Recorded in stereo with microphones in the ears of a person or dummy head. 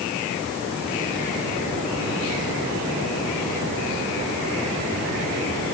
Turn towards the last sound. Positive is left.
No sound to turn to.